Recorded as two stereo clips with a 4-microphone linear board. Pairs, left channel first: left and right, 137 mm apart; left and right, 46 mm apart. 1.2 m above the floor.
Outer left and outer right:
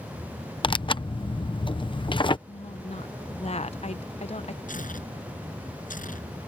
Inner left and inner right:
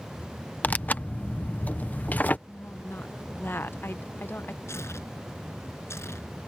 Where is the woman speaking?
50° left (ahead or behind).